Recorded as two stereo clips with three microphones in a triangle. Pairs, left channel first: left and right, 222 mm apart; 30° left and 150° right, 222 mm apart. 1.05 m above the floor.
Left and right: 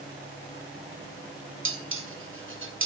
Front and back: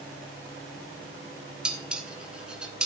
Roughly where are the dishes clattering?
Ahead right.